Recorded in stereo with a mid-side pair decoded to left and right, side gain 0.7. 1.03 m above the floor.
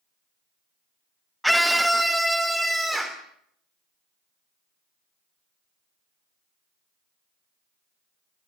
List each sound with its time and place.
1.4 s a scream: straight ahead, 0.7 m; by 3.2 s 5° right, 3 m